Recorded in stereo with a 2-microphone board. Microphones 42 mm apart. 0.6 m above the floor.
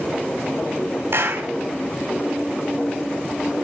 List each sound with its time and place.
1.1 s a clap: 70° right (ahead or behind), 3 m